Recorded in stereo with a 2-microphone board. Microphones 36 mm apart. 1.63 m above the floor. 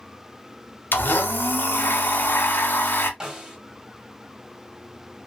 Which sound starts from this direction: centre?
A snare drum, at 3.2 s.